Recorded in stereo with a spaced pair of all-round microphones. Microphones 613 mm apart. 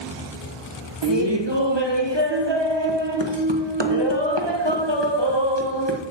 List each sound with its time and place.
1.0 s laughter: 40° right (ahead or behind), 1.4 m